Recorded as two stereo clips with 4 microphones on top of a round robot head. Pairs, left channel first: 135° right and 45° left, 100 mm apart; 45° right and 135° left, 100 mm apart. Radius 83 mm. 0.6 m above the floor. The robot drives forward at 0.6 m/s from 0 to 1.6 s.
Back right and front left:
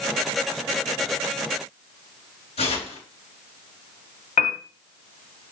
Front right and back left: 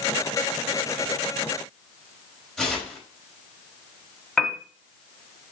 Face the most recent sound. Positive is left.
turn(degrees=-130)